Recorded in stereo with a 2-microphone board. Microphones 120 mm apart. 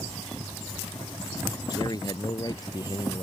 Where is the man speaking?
35° left (ahead or behind).